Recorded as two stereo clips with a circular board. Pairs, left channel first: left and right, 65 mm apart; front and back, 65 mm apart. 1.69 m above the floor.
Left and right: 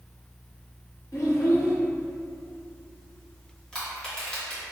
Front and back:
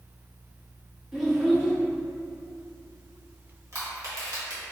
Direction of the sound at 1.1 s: 100° left.